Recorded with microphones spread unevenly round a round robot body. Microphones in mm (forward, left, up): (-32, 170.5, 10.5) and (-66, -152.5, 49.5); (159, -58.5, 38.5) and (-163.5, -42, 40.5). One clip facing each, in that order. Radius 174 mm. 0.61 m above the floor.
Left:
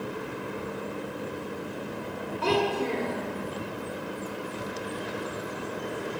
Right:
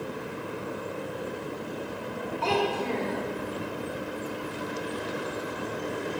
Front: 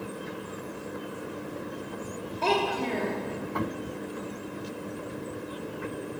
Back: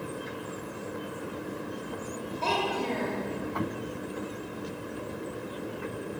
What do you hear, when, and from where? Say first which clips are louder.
2.4 s a child speaking: left 2 dB, front 4 dB; 20° left, 1.4 m